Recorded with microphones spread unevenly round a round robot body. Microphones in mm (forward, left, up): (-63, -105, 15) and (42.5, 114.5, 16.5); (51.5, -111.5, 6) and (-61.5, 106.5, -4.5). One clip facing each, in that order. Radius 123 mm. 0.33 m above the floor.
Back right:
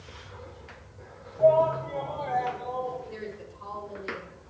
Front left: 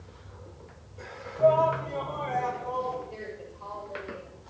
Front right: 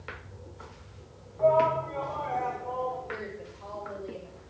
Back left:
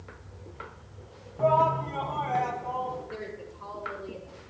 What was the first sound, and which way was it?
A shout, 140° left.